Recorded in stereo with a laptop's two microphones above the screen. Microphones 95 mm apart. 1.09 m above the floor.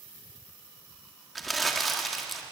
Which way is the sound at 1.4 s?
Centre (ahead or behind).